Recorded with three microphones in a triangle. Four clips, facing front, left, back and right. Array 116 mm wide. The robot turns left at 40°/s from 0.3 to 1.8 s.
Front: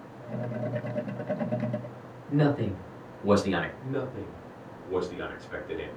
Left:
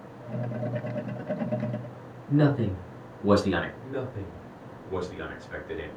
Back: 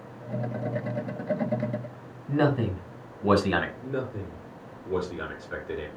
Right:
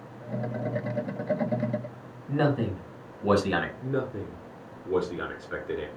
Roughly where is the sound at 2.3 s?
Behind right.